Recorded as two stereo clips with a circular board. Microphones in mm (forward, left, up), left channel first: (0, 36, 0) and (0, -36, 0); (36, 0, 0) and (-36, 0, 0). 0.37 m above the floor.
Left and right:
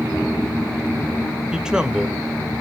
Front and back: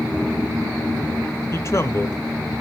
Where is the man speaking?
15° right, 1.0 m.